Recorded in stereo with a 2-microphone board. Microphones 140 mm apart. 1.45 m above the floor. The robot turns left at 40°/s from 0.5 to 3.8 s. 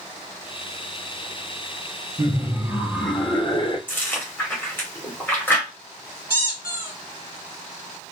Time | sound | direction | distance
2.2 | laughter | 150° right | 1.1 m
3.9 | chewing | 15° left (ahead or behind) | 1.8 m
6.3 | a squeak | 15° right (ahead or behind) | 1.4 m